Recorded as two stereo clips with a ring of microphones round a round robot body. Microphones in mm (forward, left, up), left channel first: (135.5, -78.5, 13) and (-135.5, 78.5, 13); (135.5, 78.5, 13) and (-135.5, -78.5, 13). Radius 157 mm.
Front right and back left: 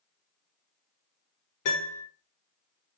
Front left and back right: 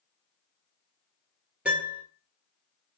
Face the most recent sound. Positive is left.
turn(degrees=-65)